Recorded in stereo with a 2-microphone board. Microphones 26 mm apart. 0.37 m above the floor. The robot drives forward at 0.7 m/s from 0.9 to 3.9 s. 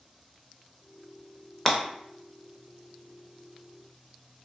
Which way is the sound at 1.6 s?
15° left (ahead or behind).